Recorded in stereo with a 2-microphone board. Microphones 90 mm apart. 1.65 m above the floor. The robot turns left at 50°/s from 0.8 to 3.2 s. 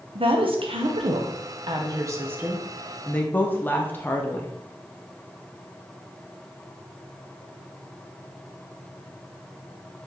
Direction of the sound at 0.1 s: 75° right (ahead or behind).